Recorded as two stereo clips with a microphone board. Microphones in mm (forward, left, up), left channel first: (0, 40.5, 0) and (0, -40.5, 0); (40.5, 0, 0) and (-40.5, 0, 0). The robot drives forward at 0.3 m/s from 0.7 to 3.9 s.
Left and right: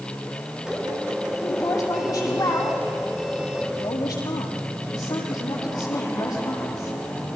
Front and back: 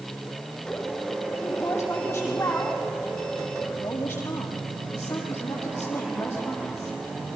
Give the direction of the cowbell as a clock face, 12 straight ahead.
I don't hear a cowbell.